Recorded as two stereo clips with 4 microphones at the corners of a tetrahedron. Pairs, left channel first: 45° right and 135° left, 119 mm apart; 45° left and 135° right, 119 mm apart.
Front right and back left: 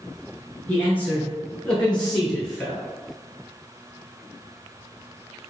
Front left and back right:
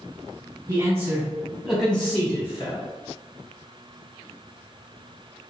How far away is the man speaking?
About 1.2 m.